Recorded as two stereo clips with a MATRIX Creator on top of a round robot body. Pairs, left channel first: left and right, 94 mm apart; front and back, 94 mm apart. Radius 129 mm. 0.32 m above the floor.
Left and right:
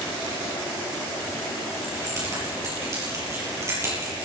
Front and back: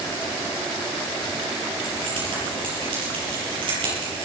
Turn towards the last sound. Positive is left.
turn(degrees=-150)